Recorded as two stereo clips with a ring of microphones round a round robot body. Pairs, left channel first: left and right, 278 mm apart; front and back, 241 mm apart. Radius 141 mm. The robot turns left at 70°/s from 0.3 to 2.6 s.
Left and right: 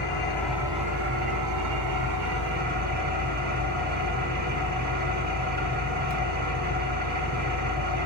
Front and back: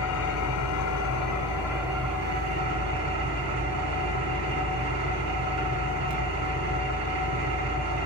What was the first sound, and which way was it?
An engine running, 15° left.